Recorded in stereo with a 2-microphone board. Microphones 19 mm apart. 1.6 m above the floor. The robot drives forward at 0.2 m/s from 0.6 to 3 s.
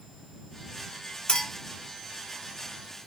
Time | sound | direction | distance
1.3 | a clink | 65° left (ahead or behind) | 1.9 m